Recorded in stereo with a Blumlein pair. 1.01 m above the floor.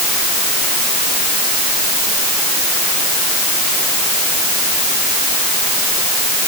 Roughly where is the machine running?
I don't hear a machine running.